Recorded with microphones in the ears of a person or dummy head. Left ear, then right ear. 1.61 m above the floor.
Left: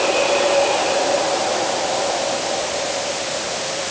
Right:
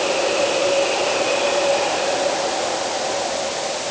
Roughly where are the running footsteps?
No running footsteps in this recording.